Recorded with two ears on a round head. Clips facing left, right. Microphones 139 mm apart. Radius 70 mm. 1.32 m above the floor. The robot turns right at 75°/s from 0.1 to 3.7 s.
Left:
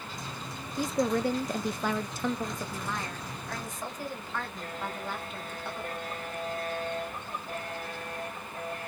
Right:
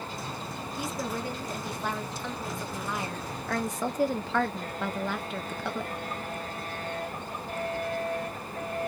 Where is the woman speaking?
25° left, 0.5 m; by 5.9 s 115° right, 0.5 m.